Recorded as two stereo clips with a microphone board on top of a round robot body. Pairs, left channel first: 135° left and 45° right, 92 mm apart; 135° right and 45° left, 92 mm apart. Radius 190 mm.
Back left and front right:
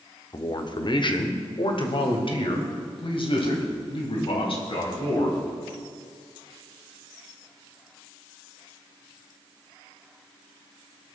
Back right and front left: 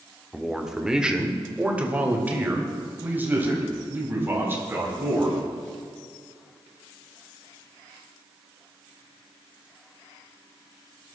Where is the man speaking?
135° left, 1.6 m; by 5.4 s 110° left, 5 m.